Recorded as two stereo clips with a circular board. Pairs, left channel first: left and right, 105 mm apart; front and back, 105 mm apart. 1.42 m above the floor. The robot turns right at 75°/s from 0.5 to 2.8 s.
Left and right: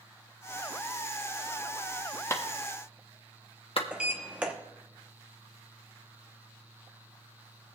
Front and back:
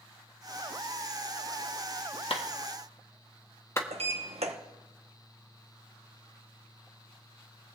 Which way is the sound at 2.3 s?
25° left.